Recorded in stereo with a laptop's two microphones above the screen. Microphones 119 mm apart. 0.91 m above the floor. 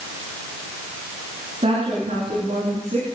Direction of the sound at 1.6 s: 60° right (ahead or behind).